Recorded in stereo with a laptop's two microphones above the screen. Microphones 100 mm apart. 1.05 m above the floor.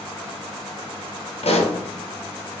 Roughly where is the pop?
Left.